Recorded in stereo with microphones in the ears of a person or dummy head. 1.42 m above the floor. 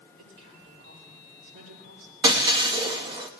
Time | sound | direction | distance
0.2 | a woman speaking | 70° right (ahead or behind) | 9.5 m
2.2 | breaking glass | 25° right (ahead or behind) | 1.0 m